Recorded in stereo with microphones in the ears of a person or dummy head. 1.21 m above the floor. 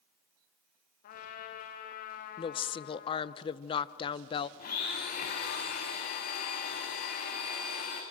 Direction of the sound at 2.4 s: 25° left (ahead or behind).